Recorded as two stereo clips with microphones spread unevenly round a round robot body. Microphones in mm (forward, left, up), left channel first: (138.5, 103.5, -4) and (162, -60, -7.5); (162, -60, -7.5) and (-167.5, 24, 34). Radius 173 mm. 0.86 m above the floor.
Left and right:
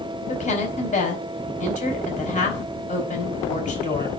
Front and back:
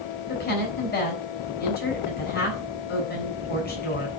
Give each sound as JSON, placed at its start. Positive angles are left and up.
{"t": 0.3, "sound": "a woman speaking", "azimuth_deg": 50, "distance_m": 3.5}